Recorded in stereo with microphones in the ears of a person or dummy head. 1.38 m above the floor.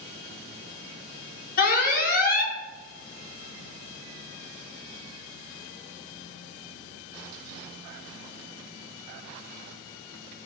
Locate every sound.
1.6 s an alarm: 45° left (ahead or behind), 1.8 m